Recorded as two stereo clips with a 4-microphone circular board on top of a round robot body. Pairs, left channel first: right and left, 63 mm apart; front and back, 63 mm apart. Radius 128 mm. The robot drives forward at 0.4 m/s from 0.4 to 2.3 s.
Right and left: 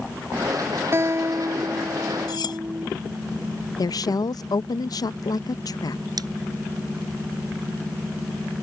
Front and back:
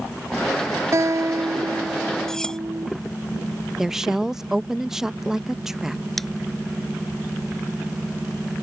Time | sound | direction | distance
0.9 | a guitar | 140° left | ?
2.3 | cutlery clinking | 80° right | ?
3.8 | a woman speaking | 95° right | ?
6.2 | scissors | 90° left | ?